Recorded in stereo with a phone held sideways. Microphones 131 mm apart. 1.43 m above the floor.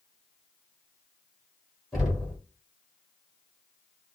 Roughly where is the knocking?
Centre.